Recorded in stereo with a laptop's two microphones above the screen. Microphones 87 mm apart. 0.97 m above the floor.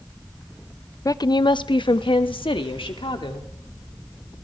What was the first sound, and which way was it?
A woman speaking, 40° left (ahead or behind).